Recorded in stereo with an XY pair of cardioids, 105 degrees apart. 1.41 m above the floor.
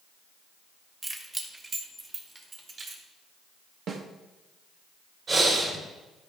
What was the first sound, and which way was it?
Keys jangling, 20° right.